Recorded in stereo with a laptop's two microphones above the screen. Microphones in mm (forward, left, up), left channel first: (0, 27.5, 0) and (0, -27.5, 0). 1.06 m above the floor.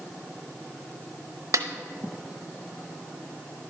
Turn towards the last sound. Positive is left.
turn(degrees=-85)